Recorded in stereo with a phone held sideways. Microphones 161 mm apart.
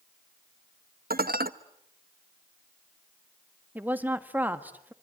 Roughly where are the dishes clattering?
Right.